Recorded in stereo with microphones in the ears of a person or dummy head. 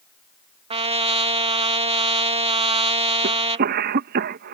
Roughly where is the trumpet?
Right.